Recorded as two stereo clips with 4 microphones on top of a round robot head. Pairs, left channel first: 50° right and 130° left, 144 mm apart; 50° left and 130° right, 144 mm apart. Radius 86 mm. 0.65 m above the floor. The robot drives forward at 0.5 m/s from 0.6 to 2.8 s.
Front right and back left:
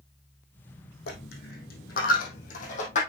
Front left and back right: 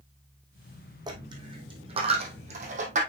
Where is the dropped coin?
70° right, 2.5 m; by 3.0 s 90° right, 2 m.